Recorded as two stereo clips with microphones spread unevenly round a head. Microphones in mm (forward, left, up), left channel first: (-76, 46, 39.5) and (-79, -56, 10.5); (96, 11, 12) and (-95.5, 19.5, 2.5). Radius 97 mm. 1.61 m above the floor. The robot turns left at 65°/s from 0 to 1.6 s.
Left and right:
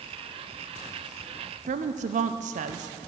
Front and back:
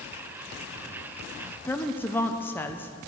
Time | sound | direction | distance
1.7 | a woman speaking | 80° right | 0.6 m